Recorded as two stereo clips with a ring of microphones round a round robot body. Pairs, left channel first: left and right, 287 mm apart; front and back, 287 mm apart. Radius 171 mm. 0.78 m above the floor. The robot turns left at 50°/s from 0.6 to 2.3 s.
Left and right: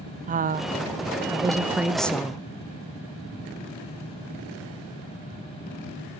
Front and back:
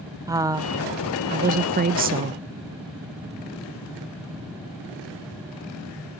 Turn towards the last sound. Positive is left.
turn(degrees=160)